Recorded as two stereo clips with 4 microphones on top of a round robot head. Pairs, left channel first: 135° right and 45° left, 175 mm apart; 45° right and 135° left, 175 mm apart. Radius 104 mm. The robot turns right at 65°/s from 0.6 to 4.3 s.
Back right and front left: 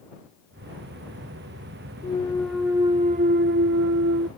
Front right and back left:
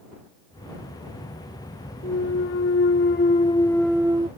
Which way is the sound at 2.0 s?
75° right.